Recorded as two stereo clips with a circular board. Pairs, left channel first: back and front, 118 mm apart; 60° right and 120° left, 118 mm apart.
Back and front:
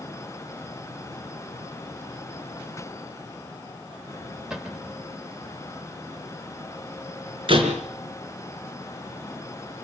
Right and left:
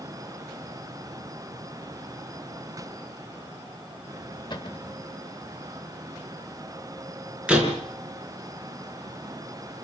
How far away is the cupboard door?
About 1.7 m.